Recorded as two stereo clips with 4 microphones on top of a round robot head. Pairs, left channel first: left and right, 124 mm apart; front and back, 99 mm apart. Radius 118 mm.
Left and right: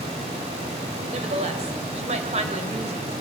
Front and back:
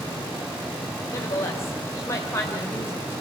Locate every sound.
1.1 s a woman speaking: 65° right, 2.5 m